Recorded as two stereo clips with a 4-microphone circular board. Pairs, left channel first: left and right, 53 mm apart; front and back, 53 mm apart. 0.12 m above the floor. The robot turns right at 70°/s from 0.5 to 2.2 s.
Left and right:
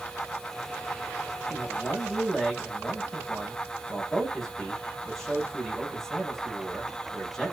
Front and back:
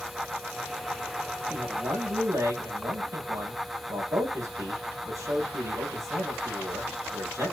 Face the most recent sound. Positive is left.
turn(degrees=175)